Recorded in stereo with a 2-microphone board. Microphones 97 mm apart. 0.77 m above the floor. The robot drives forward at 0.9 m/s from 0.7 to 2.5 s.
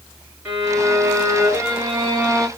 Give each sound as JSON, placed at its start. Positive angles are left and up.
{"t": 0.5, "sound": "a violin", "side_deg": -20, "distance_m": 2.5}